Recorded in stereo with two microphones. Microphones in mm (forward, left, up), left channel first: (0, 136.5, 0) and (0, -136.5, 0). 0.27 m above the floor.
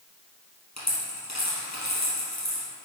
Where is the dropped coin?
75° left (ahead or behind), 3.5 m.